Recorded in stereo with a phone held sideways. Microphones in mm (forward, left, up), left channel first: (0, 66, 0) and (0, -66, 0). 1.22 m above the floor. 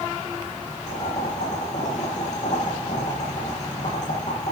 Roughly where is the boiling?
Left.